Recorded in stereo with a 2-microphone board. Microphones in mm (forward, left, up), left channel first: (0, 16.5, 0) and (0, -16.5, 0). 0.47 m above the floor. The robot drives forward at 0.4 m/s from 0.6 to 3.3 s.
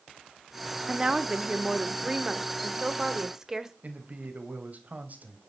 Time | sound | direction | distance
0.9 | a woman speaking | 25° right (ahead or behind) | 0.9 m
3.8 | a man speaking | 50° right (ahead or behind) | 3 m